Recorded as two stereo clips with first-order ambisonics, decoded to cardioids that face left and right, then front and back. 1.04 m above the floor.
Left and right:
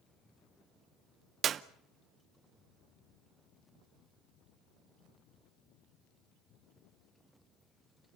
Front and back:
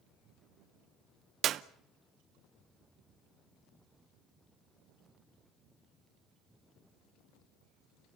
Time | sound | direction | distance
1.4 | a clap | 140° right | 0.7 m